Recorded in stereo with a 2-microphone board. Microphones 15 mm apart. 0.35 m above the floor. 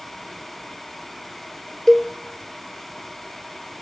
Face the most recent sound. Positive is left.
turn(degrees=30)  # may be behind; listen again after turning